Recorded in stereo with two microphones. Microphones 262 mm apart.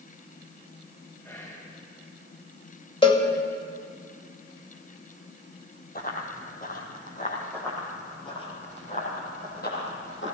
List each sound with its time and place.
1.2 s whispering: 10° left (ahead or behind), 1.3 m
3.0 s a cowbell: 20° left (ahead or behind), 1.4 m
6.0 s running footsteps: 35° left (ahead or behind), 1.7 m; by 7.4 s 30° left (ahead or behind), 2.5 m
7.5 s running footsteps: 10° left (ahead or behind), 3.5 m; by 10.3 s 50° left (ahead or behind), 3 m